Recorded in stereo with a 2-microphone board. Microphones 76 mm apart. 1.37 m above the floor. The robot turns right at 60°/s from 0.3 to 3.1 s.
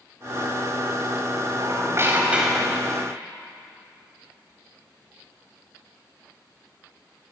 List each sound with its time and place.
1.6 s a squeak: 60° right, 4.5 m; by 3.0 s 20° left, 4.5 m